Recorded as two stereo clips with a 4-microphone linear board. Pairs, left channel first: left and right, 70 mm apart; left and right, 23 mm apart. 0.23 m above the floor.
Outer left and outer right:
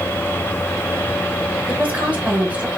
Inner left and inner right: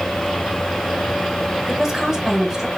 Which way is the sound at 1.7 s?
20° right (ahead or behind).